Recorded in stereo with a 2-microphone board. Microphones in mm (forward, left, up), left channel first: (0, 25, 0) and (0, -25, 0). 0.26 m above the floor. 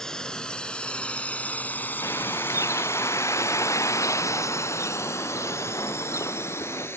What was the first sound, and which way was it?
A drone, 15° left (ahead or behind).